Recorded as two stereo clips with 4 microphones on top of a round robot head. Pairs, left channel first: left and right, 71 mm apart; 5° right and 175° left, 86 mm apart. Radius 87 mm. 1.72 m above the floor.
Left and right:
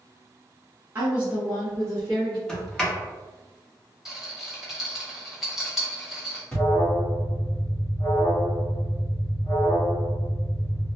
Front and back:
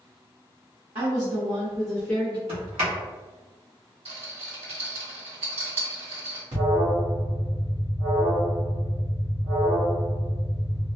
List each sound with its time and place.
0.9 s a woman speaking: 145° right, 0.9 m; by 2.4 s 60° left, 1.0 m
2.5 s a sliding door: 170° left, 0.9 m
4.0 s a rattle: 175° right, 1.1 m
6.5 s an alarm: 160° left, 1.2 m